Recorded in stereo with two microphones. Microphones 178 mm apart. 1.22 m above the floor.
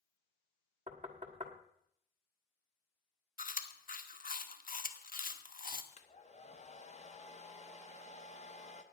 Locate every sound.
0.9 s knocking: 45° right (ahead or behind), 1.5 m
3.4 s chewing: 55° left (ahead or behind), 0.9 m
5.9 s a hair dryer: 40° left (ahead or behind), 0.9 m